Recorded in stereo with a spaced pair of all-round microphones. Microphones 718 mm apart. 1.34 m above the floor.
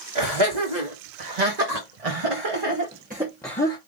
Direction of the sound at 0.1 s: 80° right.